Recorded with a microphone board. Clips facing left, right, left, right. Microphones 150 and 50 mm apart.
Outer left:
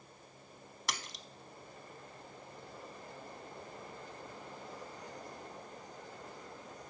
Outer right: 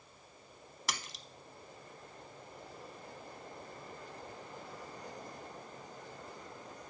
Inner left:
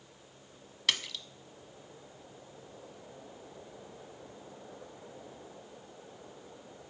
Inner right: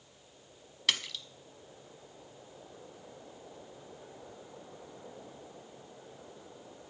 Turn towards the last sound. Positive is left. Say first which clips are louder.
# even, even
turn(degrees=0)  # may be behind; listen again after turning